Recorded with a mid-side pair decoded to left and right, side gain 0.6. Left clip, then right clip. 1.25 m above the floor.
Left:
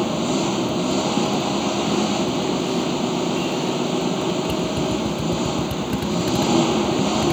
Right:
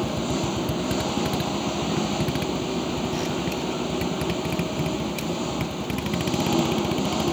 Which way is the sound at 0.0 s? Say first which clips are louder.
Left 5 dB; 25° left.